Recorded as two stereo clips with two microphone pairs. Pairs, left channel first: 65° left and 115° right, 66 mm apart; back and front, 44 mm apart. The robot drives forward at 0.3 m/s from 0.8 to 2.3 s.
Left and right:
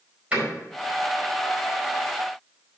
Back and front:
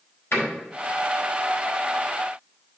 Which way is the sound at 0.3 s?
175° left.